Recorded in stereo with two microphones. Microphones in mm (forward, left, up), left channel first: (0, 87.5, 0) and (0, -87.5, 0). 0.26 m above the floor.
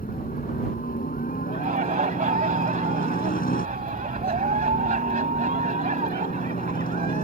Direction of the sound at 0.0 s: 50° left (ahead or behind).